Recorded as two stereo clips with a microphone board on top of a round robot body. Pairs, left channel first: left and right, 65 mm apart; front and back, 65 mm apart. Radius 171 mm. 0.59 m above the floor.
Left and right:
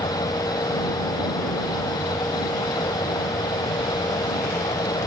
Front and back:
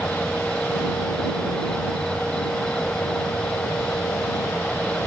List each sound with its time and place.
0.0 s an insect: 80° left